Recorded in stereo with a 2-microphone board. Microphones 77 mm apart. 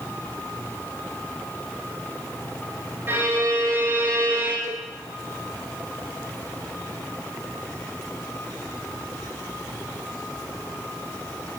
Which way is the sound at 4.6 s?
50° left (ahead or behind).